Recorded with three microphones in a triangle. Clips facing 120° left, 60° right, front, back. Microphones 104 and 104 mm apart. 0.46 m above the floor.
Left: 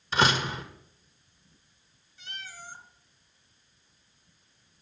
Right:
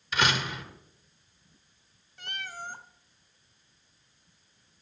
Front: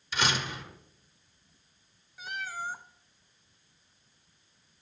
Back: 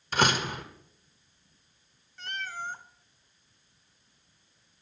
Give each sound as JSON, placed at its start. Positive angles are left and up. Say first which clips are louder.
{"t": 0.1, "sound": "a door slam", "louder": "left 3 dB, back 5 dB", "azimuth_deg": 170, "distance_m": 1.1}
{"t": 2.2, "sound": "a cat meowing", "louder": "right 5 dB, even", "azimuth_deg": -80, "distance_m": 0.6}